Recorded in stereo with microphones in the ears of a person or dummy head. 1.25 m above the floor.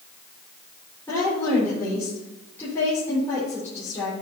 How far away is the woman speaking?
About 4.5 m.